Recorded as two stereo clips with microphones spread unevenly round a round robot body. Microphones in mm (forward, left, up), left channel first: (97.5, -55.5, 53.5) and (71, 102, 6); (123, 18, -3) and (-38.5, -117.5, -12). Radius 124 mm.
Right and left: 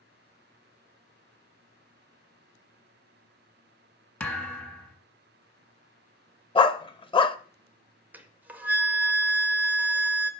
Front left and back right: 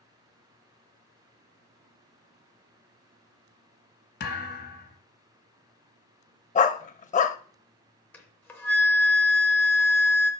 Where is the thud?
Straight ahead, 1.8 m.